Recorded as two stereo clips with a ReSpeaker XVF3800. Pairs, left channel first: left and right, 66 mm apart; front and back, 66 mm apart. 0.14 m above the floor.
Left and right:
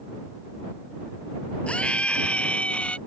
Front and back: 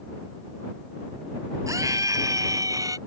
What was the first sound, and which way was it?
A scream, 160° left.